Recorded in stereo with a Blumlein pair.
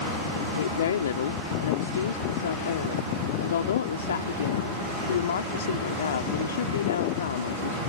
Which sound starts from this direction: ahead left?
A woman speaking, at 0.6 s.